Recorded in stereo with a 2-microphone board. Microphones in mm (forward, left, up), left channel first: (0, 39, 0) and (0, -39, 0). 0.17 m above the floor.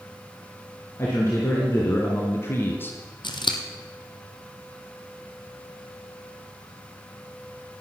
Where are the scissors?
80° left, 1.3 m.